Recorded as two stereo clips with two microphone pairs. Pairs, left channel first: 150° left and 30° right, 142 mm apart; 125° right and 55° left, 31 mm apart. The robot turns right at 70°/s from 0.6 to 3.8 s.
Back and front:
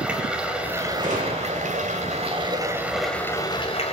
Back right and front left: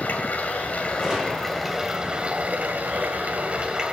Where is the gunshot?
40° right, 6 m; by 1.8 s 15° left, 6 m.